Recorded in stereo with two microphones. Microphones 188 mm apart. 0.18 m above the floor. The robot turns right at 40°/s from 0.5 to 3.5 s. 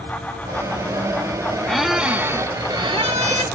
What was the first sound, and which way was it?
A squeak, 175° left.